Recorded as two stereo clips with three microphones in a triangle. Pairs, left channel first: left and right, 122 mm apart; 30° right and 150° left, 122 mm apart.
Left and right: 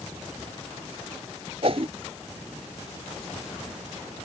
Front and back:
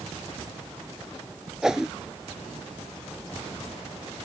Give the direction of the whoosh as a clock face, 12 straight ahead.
4 o'clock.